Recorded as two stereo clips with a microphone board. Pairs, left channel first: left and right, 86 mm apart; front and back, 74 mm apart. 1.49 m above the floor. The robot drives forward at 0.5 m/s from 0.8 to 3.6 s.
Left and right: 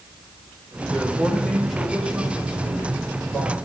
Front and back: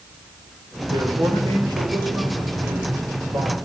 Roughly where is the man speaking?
Behind.